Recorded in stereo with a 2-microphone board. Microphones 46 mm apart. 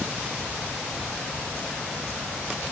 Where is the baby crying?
No baby crying in this recording.